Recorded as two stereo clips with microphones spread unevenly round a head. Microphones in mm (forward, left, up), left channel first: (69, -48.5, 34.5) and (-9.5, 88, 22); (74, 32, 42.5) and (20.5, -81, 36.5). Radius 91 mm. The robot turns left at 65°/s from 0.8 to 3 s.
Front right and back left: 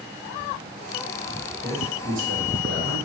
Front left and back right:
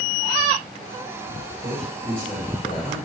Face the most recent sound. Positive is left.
turn(degrees=110)